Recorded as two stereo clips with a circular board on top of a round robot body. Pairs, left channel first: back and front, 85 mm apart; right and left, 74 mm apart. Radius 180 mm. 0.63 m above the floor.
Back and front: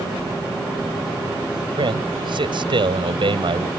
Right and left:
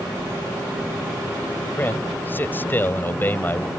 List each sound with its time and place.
1.8 s a man speaking: 25° right